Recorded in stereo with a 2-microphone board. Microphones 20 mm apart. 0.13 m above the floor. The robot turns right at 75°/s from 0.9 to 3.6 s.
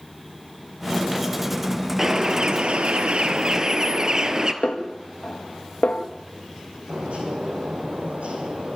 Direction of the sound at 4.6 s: 80° left.